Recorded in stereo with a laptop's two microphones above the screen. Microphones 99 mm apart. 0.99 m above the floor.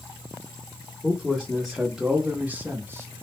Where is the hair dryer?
I don't hear a hair dryer.